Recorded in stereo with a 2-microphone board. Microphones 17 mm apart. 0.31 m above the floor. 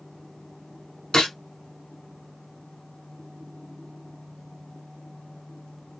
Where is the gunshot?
75° left (ahead or behind), 1.0 m.